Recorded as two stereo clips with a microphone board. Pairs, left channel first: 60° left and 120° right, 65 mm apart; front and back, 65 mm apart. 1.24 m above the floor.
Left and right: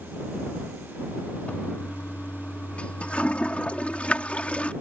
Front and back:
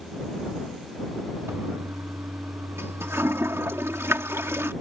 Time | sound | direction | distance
1.5 | a toilet flushing | 130° left | ?